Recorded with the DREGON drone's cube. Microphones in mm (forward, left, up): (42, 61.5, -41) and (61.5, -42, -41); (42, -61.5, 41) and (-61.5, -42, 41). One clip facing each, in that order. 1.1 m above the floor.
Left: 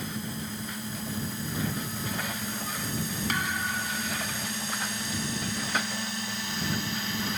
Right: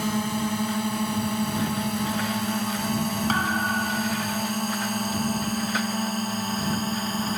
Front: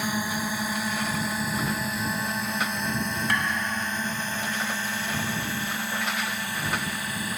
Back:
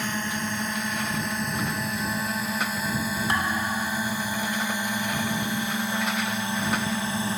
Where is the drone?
90° right; by 7.4 s 130° right.